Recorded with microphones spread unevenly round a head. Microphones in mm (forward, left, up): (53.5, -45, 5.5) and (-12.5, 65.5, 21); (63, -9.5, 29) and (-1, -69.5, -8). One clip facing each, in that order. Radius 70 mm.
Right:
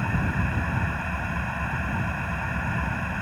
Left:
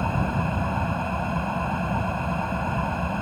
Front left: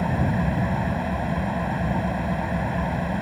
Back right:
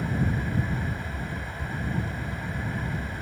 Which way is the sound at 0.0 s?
55° left.